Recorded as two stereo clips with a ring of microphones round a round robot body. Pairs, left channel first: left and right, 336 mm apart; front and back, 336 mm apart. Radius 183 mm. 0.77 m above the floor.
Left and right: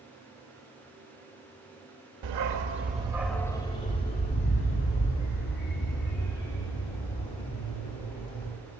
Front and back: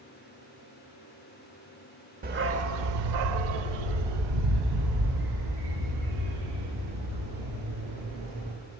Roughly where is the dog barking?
Behind right.